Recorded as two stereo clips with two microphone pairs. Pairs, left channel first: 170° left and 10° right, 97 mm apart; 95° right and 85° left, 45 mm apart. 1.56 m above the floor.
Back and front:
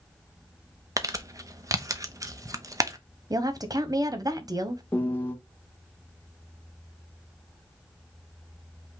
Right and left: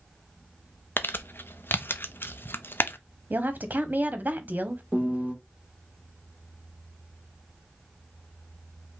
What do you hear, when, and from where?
1.0 s crumpling: 65° right, 0.5 m
3.3 s a woman speaking: 40° left, 0.7 m
4.9 s a piano: 120° left, 1.1 m